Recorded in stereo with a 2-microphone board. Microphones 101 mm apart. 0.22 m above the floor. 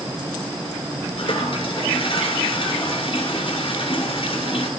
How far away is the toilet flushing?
About 1.4 m.